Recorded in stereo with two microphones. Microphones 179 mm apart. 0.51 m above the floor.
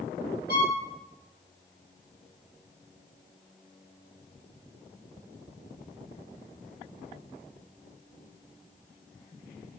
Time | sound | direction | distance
0.5 | a violin | 65° right (ahead or behind) | 1.0 m